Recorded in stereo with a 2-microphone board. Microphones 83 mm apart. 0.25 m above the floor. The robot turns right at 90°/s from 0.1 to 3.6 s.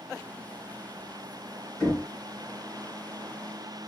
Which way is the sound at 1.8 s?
10° left (ahead or behind).